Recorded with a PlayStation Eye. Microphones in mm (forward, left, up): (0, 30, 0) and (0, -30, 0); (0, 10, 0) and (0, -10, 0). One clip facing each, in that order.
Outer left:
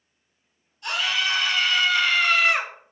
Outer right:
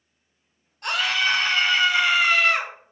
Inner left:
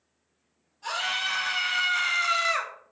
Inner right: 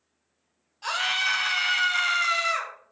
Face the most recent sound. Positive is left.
turn(degrees=15)  # may be behind; listen again after turning